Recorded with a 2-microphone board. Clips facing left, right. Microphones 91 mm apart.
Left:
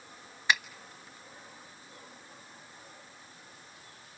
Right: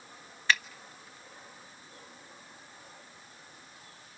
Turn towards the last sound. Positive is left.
turn(degrees=15)  # may be behind; listen again after turning